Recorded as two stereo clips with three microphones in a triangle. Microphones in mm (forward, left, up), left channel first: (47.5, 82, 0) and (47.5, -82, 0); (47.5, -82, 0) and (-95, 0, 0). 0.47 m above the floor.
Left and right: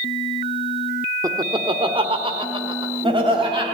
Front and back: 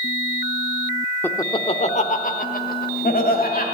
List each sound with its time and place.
1.2 s laughter: 90° right, 0.8 m; by 3.6 s 35° right, 3 m